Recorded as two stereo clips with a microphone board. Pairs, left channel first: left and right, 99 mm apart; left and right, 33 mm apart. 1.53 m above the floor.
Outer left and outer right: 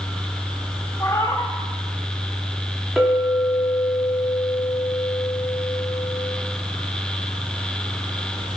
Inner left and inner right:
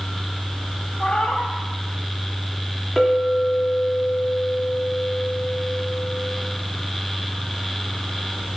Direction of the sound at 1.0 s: 30° left (ahead or behind).